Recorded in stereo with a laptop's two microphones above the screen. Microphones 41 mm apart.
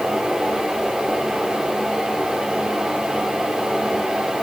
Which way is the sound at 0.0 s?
15° right (ahead or behind).